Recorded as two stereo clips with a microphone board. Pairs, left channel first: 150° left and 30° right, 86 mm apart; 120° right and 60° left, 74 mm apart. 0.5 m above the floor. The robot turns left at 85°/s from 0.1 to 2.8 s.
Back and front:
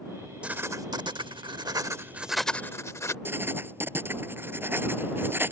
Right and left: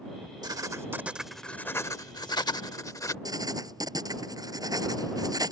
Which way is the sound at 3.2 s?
35° left.